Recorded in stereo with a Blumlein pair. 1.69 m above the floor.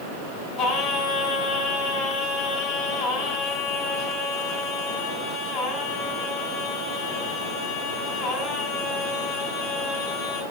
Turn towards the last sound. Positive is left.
turn(degrees=25)